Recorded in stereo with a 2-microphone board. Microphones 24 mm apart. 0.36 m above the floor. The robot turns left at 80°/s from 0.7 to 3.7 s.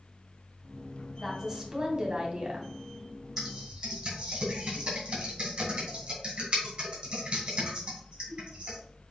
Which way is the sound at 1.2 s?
15° right.